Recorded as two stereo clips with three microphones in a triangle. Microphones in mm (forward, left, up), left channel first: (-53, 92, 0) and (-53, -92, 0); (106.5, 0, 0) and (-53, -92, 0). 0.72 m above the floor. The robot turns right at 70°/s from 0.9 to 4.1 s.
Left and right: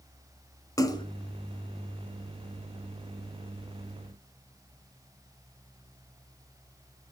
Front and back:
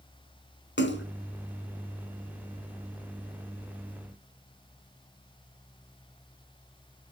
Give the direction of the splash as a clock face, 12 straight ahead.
11 o'clock.